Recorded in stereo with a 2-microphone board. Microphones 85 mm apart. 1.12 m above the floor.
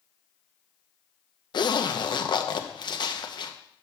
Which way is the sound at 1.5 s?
60° left (ahead or behind).